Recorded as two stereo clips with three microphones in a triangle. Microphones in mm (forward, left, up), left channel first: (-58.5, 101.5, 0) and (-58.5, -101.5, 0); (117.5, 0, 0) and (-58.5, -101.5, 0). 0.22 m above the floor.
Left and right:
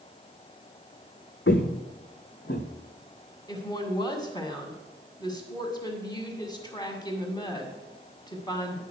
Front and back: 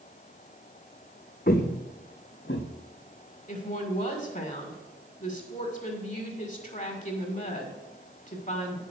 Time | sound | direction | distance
1.5 | footsteps | 70° left | 0.9 m
3.5 | a woman speaking | 35° left | 1.9 m